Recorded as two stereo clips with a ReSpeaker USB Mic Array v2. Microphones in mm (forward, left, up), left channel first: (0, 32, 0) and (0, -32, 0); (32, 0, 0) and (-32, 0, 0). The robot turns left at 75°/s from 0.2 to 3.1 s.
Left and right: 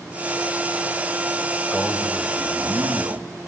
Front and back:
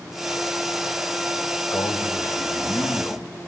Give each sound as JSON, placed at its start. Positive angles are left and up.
{"t": 1.7, "sound": "a man speaking", "azimuth_deg": 15, "distance_m": 2.5}